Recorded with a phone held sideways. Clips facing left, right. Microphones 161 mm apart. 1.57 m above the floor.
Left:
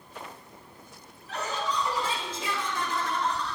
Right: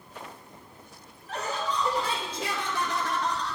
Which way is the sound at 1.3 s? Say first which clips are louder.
Even; 50° right (ahead or behind).